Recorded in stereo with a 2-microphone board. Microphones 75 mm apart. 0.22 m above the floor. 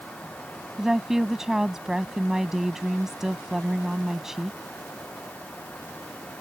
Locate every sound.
0.8 s a woman speaking: 5° right (ahead or behind)